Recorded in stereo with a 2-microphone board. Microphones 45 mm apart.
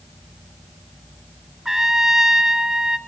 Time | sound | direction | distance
1.6 | a trumpet | 10° right (ahead or behind) | 0.7 m